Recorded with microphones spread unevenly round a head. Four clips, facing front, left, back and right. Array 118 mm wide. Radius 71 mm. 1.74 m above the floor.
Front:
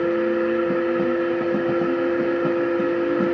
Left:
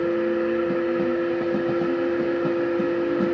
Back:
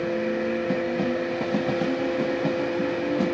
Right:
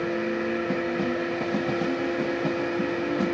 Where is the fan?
5° left, 7.5 m.